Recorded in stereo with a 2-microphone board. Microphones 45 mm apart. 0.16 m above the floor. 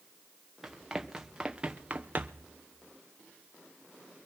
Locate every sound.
0.6 s running footsteps: 10° right (ahead or behind), 1.7 m; by 2.5 s 55° right (ahead or behind), 0.7 m